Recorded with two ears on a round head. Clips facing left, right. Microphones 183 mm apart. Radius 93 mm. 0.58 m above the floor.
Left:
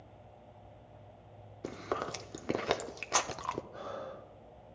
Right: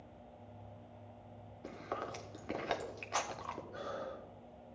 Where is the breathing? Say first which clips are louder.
Left 1 dB; 15° right (ahead or behind), 1.3 m.